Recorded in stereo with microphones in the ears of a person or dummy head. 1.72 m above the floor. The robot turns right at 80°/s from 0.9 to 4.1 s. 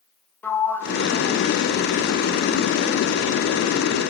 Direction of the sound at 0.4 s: 15° left (ahead or behind).